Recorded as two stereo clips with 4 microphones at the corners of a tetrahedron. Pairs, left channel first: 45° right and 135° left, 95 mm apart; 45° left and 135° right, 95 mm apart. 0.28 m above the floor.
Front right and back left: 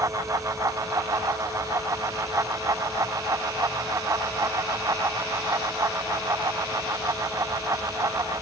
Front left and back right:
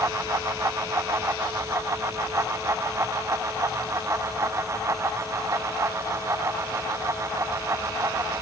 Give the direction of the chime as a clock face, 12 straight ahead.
I don't hear a chime.